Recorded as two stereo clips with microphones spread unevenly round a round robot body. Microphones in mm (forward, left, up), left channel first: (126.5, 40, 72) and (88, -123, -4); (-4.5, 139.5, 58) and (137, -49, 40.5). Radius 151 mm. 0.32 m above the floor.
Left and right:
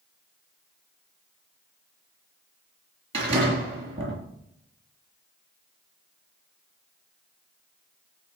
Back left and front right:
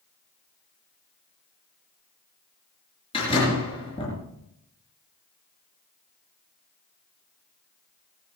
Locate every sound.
3.1 s a door slam: 160° right, 5 m